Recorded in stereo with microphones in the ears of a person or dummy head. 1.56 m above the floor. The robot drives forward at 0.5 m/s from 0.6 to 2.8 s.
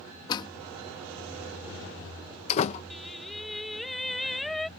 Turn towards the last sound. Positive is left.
turn(degrees=0)  # may be behind; listen again after turning